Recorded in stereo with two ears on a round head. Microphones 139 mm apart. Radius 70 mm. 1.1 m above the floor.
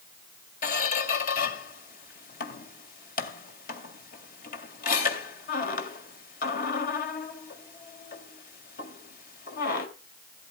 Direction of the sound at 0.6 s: 60° left (ahead or behind).